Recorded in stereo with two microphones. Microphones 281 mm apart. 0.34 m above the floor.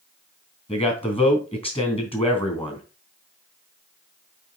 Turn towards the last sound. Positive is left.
turn(degrees=20)  # may be behind; listen again after turning